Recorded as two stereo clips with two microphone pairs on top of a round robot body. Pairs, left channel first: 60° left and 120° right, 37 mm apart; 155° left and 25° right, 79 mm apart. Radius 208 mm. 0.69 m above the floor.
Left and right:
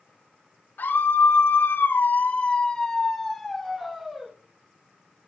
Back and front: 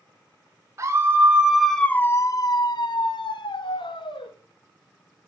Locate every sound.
0.8 s a scream: 30° left, 1.7 m; by 4.3 s 160° left, 3 m